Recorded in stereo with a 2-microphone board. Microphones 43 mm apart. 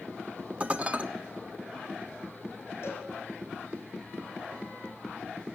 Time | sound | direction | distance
0.6 | dishes clattering | 35° right (ahead or behind) | 0.7 m
2.8 | a cowbell | 65° left (ahead or behind) | 4 m